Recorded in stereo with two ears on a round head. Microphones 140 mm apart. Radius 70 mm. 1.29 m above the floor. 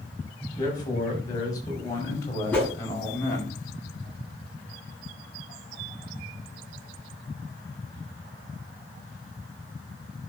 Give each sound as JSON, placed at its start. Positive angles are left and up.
{"t": 0.6, "sound": "a man speaking", "side_deg": 25, "distance_m": 6.5}
{"t": 2.5, "sound": "a whoosh", "side_deg": 10, "distance_m": 6.0}